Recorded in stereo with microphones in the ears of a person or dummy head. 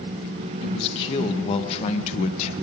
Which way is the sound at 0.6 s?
30° left (ahead or behind).